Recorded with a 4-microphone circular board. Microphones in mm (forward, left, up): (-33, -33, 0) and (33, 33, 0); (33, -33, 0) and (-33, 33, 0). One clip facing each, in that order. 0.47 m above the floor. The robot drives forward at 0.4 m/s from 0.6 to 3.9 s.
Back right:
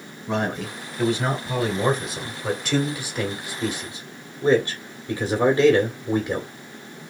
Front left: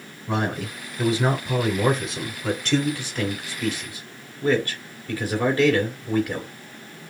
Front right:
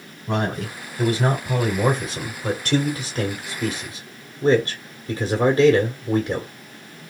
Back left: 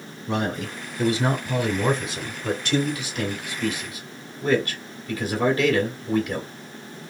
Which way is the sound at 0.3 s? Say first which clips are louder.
Even, front right 2 dB; 35° right.